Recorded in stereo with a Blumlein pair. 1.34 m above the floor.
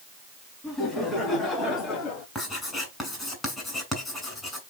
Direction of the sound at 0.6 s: 15° left.